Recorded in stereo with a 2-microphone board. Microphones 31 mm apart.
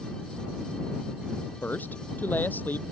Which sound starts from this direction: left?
A man speaking, at 1.6 s.